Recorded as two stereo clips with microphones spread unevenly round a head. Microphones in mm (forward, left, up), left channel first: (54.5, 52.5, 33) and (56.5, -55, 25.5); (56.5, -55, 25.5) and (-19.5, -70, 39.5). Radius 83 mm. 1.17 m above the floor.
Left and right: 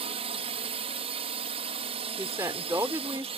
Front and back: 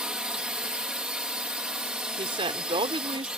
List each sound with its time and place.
0.0 s a drone: 90° right
2.2 s a woman speaking: 165° right